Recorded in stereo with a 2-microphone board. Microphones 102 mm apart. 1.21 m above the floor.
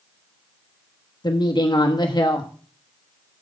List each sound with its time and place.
1.2 s a woman speaking: 45° left (ahead or behind), 1.4 m